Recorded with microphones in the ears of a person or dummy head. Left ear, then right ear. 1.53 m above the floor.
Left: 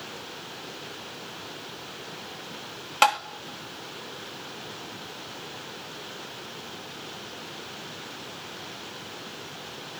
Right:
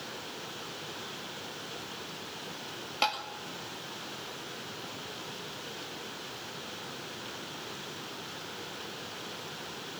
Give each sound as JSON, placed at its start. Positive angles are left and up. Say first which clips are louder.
{"t": 3.0, "sound": "tapping", "louder": "left 9 dB", "side_deg": 45, "distance_m": 2.0}